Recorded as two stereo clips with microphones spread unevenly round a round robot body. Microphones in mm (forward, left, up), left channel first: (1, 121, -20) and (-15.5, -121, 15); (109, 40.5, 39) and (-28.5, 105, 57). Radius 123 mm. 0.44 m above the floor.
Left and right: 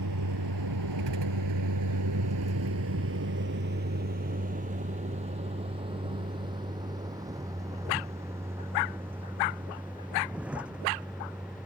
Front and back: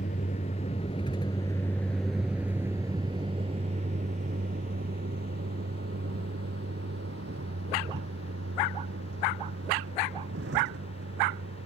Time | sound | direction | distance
0.0 | a vehicle | 75° right | ?